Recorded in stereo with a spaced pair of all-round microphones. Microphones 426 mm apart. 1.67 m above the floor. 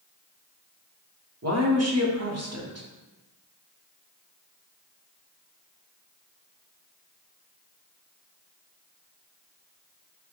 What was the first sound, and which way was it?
A woman speaking, 35° right (ahead or behind).